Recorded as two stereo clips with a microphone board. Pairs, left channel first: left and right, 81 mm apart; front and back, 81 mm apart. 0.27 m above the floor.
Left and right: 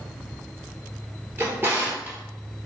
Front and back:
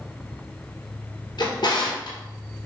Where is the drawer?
25° right, 1.6 m.